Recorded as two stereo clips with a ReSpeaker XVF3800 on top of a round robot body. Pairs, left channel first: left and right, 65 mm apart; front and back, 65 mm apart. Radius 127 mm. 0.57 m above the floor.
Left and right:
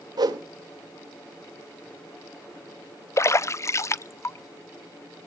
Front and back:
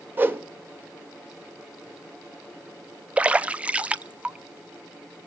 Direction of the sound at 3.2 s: 115° left.